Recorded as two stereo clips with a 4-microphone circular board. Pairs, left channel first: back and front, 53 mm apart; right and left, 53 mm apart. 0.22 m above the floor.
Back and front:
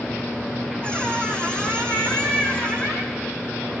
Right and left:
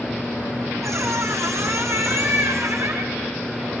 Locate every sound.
0.8 s a squeak: 110° left, 7 m